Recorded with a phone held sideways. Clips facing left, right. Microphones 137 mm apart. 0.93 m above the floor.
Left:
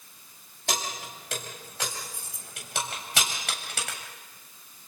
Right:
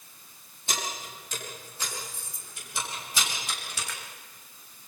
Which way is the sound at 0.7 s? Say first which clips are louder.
Left 2 dB; 80° left.